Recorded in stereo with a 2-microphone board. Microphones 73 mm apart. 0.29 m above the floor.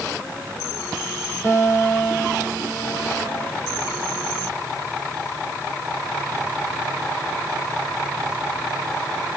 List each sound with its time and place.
1.4 s a guitar: 35° left (ahead or behind), 4.5 m